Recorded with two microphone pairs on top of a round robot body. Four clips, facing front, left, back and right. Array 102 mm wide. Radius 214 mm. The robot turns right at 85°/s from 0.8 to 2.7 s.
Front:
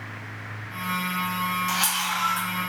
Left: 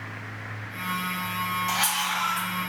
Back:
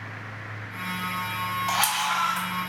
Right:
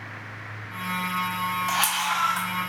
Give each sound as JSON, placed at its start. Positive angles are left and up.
{"t": 1.7, "sound": "a camera shutter", "azimuth_deg": -150, "distance_m": 0.8}